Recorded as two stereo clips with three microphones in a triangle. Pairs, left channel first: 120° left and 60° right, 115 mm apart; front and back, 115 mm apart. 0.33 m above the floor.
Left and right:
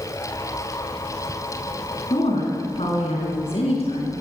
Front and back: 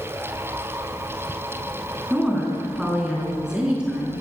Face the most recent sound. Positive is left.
turn(degrees=100)